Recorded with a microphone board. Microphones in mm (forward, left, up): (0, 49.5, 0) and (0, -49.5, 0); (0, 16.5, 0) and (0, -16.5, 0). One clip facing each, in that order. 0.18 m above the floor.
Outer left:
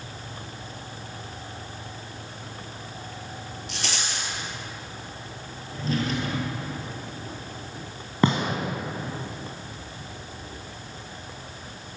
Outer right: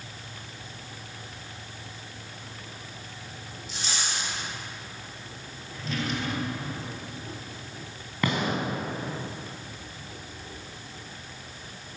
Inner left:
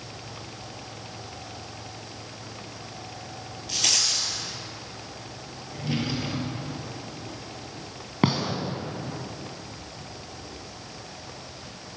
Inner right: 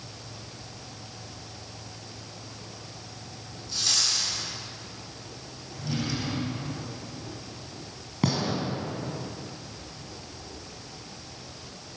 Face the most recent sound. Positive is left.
turn(degrees=30)  # may be behind; listen again after turning